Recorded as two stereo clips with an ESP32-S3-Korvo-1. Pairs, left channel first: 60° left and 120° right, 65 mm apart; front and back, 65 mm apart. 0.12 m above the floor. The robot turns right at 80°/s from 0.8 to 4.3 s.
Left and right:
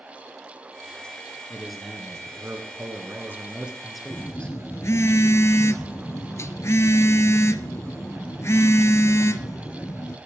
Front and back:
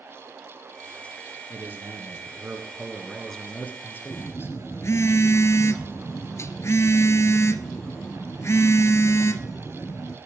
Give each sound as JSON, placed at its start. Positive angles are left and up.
{"t": 1.5, "sound": "a man speaking", "azimuth_deg": 135, "distance_m": 1.5}
{"t": 4.1, "sound": "a phone buzzing", "azimuth_deg": 15, "distance_m": 0.6}